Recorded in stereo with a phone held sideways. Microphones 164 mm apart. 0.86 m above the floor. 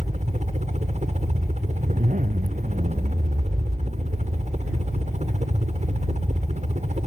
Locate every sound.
0.0 s a helicopter: 45° right (ahead or behind)
1.8 s a zipper: 50° right (ahead or behind)